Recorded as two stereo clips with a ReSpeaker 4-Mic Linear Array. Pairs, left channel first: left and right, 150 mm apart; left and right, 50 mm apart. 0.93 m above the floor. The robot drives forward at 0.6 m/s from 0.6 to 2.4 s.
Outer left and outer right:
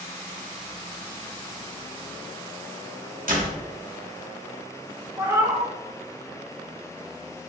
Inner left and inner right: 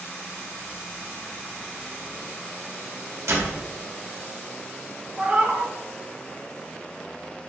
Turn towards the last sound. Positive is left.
turn(degrees=-20)  # may be behind; listen again after turning